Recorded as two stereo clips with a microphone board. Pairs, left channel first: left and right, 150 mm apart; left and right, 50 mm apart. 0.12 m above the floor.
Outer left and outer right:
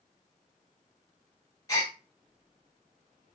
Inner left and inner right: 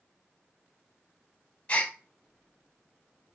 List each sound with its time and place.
1.7 s a gasp: 25° left (ahead or behind), 1.0 m